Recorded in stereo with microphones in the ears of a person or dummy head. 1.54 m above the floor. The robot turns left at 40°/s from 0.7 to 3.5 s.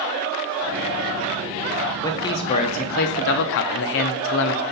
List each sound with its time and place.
2.0 s a man speaking: 160° left, 0.6 m; by 4.6 s 105° left, 0.6 m